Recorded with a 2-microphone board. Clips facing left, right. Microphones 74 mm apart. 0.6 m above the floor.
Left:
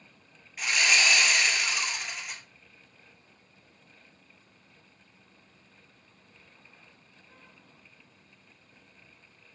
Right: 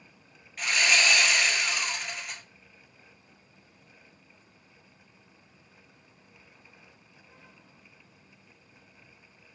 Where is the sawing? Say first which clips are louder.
Right 1 dB; 5° left (ahead or behind), 1.7 m.